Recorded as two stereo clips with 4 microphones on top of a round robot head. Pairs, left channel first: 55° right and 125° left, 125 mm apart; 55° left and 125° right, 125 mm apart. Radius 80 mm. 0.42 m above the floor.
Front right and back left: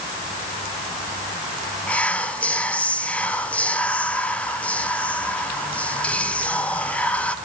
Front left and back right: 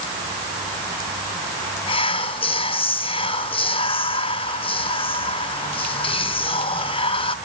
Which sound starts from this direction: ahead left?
Whispering, at 1.9 s.